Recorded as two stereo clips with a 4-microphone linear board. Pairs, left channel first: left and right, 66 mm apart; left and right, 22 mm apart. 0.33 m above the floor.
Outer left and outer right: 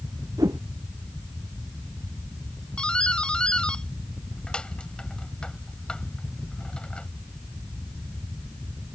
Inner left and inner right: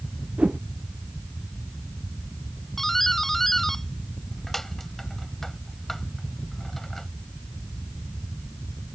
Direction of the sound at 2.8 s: 15° left (ahead or behind).